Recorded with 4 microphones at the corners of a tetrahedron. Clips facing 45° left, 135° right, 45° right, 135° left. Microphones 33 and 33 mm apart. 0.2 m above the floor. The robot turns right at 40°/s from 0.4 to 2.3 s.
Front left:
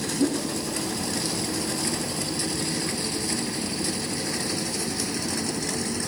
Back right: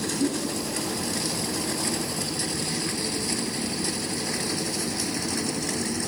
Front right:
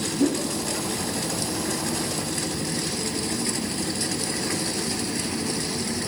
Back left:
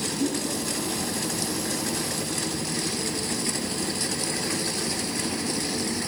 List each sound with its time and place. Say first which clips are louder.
0.2 s a whoosh: front left 3 dB, front right 5 dB; 5° right, 7 m